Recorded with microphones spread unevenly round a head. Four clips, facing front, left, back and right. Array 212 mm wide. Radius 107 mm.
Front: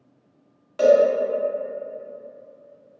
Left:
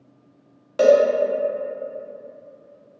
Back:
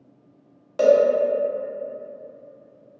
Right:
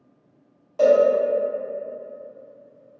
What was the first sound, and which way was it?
A cowbell, 100° left.